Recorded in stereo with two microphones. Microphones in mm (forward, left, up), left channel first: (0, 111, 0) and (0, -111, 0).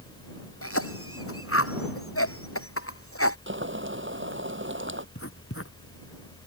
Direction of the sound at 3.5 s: 60° right (ahead or behind).